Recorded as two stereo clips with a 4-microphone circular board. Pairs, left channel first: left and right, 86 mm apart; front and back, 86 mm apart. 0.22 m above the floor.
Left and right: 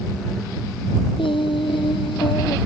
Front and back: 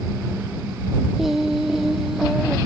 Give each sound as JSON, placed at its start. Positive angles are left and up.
{"t": 1.2, "sound": "singing", "azimuth_deg": 95}